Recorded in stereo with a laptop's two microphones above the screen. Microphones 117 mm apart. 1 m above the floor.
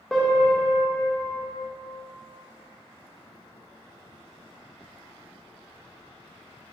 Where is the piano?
5° left (ahead or behind), 1.0 m.